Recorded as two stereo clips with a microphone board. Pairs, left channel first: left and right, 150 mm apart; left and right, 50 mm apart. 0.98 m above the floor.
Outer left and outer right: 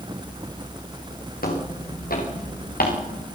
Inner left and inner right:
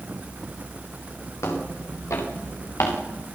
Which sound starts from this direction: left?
Footsteps, at 1.4 s.